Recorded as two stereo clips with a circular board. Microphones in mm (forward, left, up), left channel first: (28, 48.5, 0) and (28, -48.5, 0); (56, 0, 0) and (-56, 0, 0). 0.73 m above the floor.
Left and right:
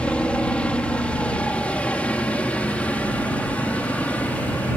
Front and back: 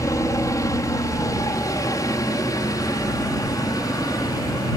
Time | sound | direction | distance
0.0 | a helicopter | 20° left | ?